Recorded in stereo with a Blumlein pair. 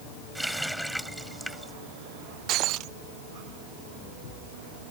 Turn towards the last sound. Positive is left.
turn(degrees=-35)